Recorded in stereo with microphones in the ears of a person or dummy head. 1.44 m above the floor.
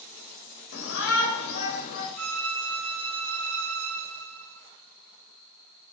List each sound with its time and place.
0.7 s a shout: 80° left, 2.5 m; by 2.1 s 70° left (ahead or behind), 2.5 m
2.2 s a violin: 70° right (ahead or behind), 0.9 m